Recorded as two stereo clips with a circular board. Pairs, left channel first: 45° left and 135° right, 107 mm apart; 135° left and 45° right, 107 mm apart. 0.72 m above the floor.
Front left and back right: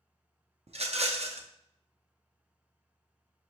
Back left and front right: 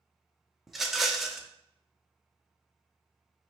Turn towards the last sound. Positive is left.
turn(degrees=-135)